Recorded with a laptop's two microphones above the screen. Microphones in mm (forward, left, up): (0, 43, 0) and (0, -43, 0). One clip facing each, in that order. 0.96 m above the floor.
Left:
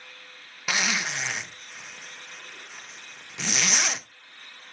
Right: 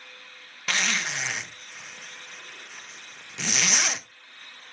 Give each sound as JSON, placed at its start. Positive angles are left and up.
{"t": 0.7, "sound": "a zipper", "side_deg": 10, "distance_m": 0.7}